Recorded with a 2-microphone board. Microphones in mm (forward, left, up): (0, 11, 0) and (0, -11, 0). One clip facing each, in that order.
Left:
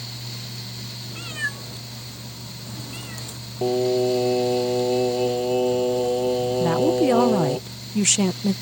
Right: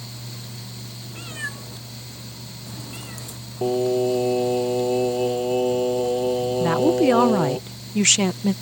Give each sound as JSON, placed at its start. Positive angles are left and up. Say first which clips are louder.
{"t": 1.1, "sound": "a cat meowing", "louder": "left 3 dB", "side_deg": 20}
{"t": 3.6, "sound": "singing", "louder": "even", "side_deg": 5}
{"t": 6.6, "sound": "a woman speaking", "louder": "right 2 dB", "side_deg": -25}